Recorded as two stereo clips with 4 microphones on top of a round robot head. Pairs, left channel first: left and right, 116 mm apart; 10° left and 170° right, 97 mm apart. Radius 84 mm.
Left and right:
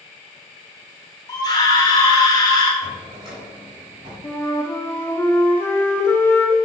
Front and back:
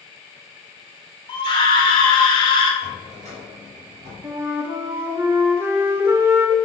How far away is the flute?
About 1.2 m.